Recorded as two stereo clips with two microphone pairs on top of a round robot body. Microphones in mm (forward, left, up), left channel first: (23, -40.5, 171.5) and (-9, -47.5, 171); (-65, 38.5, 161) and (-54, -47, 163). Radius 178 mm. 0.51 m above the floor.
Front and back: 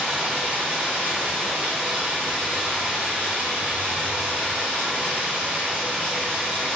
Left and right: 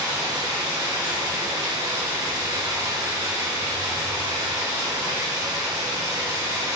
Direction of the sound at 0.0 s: 135° right.